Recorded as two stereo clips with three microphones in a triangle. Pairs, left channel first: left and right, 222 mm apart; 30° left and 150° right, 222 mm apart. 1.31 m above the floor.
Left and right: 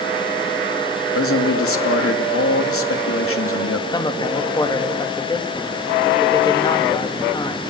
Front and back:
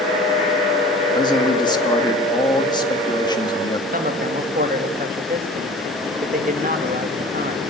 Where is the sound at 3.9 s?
160° left, 2.5 m.